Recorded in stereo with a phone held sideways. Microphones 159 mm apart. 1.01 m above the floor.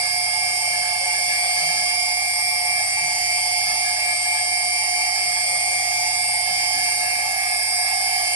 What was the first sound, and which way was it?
A machine running, 30° right (ahead or behind).